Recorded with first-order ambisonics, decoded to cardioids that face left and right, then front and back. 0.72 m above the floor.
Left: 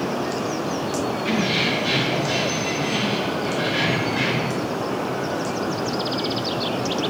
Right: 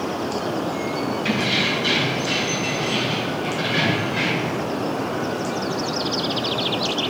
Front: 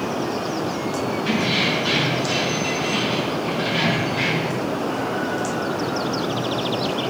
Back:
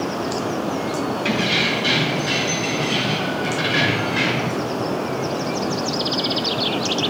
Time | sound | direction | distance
1.2 | keys jangling | 150° right | 4 m